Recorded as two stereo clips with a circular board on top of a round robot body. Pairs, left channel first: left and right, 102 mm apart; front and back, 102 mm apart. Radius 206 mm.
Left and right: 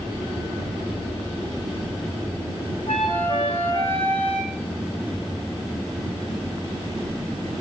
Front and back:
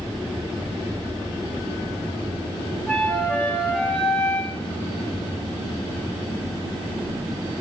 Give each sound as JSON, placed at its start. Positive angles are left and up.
{"t": 2.9, "sound": "a flute", "azimuth_deg": 80, "distance_m": 5.5}